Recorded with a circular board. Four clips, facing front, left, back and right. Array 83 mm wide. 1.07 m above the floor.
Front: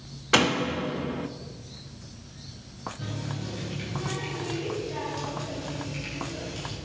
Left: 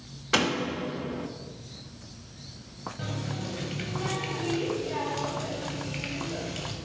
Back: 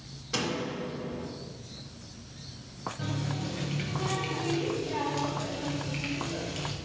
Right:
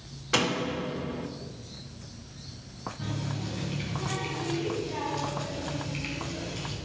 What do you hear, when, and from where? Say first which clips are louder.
0.3 s a door slam: left 1 dB, front 8 dB; 15° left, 1.1 m
3.0 s a running tap: left 1 dB, back 3 dB; 110° left, 4 m